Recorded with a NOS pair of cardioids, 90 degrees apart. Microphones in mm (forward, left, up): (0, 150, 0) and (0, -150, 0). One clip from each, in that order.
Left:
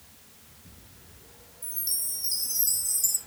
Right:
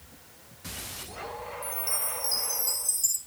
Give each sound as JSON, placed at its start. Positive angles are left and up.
{"t": 1.6, "sound": "a chime", "azimuth_deg": 0, "distance_m": 3.0}